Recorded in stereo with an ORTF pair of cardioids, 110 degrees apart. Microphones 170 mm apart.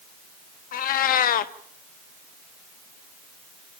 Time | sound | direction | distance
0.7 | a cat meowing | 60° left | 1.3 m